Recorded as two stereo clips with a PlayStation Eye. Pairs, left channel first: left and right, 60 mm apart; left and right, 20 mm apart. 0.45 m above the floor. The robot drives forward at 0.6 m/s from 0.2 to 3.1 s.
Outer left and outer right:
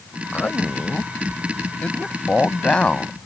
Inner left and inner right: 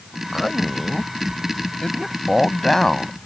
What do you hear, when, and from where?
0.3 s a man speaking: 30° left (ahead or behind); by 3.3 s 20° left (ahead or behind)